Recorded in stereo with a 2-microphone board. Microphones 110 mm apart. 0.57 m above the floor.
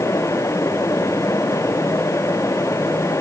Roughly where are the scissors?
I don't hear scissors.